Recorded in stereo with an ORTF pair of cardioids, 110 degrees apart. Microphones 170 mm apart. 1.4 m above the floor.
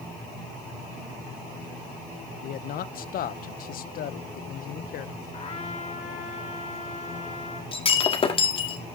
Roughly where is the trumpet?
Ahead left.